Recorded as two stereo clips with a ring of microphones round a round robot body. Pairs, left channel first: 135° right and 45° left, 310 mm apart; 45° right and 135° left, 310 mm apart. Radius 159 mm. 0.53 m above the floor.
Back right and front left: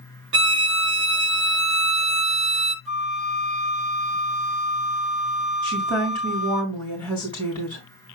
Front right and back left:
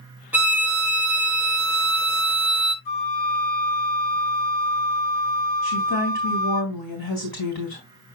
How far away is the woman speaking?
About 3.5 m.